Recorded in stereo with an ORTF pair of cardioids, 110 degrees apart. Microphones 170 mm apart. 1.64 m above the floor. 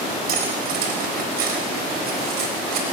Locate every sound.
0.3 s cutlery clinking: 65° right, 4.5 m